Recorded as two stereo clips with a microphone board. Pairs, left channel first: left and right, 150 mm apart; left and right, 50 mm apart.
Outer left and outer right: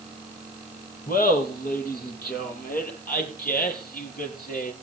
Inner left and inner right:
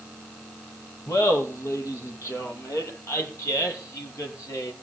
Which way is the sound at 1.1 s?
75° left (ahead or behind).